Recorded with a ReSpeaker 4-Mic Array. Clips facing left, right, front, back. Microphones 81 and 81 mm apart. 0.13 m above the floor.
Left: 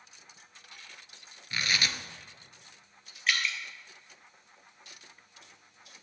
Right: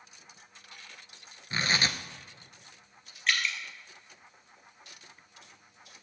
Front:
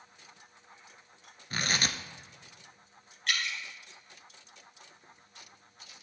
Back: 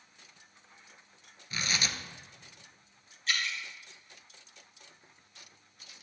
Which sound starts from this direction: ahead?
Dripping, at 3.3 s.